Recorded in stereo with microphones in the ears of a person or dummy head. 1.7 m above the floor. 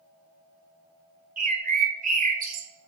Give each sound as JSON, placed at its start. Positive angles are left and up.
{"t": 1.4, "sound": "a bird", "side_deg": -40, "distance_m": 0.6}